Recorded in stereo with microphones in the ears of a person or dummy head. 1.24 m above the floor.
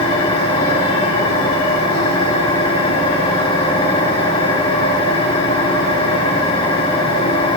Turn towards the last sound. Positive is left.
turn(degrees=30)  # may be behind; listen again after turning